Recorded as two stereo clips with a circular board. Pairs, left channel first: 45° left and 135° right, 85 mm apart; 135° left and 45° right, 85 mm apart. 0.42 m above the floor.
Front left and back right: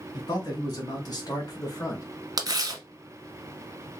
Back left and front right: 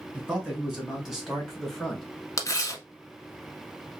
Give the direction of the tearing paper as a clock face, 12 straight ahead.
6 o'clock.